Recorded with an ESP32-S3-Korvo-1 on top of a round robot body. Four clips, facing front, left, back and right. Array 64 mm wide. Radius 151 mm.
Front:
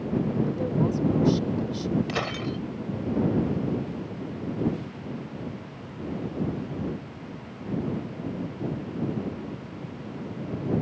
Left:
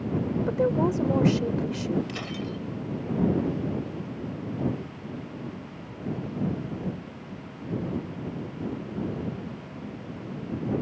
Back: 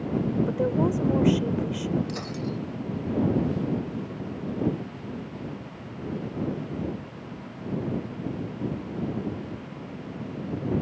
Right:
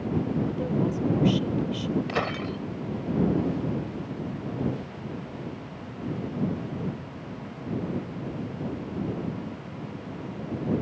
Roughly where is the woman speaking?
Left.